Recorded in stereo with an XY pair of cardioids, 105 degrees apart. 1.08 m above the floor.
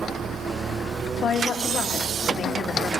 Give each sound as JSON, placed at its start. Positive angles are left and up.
{"t": 1.2, "sound": "a woman speaking", "azimuth_deg": 65, "distance_m": 1.8}